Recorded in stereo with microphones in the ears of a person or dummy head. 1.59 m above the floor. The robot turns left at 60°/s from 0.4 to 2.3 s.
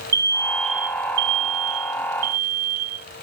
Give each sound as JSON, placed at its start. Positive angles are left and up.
{"t": 0.1, "sound": "an alarm", "azimuth_deg": -15}